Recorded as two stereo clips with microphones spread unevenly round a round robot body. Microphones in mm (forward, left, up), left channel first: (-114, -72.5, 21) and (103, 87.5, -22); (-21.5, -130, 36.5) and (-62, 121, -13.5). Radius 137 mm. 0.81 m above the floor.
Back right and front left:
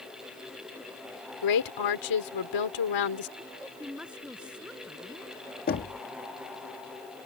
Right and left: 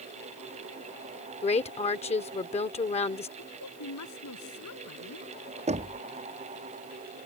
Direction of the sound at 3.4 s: 50° right.